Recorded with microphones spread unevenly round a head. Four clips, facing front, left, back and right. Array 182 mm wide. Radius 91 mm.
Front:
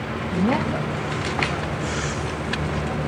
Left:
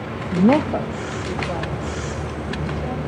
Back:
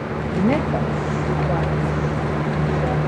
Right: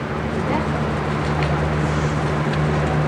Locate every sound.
0.3 s a woman speaking: 90° left, 0.7 m; by 3.0 s straight behind, 3 m